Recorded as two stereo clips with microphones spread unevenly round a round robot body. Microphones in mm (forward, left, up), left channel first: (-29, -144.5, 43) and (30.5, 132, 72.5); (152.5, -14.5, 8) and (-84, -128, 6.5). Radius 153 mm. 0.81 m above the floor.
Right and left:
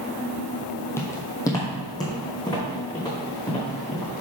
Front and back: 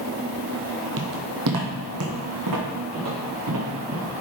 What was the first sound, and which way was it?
Footsteps, 175° left.